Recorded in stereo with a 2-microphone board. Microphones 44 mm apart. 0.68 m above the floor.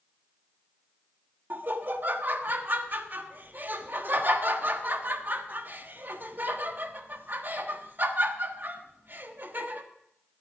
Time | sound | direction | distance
1.5 | laughter | 45° right (ahead or behind) | 1.2 m